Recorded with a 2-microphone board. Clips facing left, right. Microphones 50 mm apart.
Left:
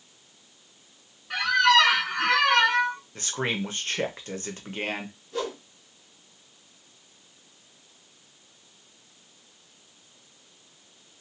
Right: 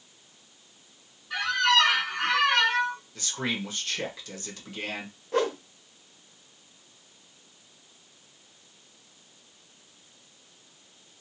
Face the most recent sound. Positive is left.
turn(degrees=-55)  # may be behind; listen again after turning